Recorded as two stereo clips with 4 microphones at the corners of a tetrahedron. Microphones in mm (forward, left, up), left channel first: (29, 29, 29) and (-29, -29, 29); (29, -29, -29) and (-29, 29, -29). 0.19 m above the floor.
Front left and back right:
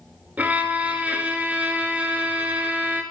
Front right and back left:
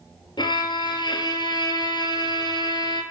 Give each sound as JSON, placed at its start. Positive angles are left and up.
{"t": 0.4, "sound": "a violin", "azimuth_deg": -65, "distance_m": 0.8}